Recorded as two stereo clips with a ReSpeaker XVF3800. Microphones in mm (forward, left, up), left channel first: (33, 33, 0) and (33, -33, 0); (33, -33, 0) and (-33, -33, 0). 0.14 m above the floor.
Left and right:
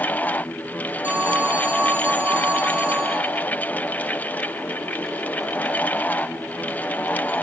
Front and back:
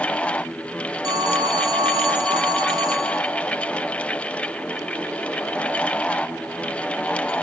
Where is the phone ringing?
155° right, 3 m.